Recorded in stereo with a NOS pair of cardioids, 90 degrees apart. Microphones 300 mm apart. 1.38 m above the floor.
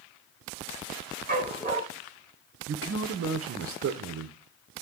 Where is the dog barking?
25° right, 3.5 m.